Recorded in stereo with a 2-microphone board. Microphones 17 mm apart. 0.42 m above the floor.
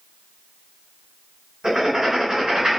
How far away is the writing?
About 2.0 m.